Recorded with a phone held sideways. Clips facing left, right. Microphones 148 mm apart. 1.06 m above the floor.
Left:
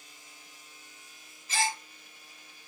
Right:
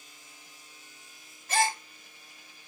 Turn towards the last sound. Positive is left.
turn(degrees=-60)  # may be behind; listen again after turning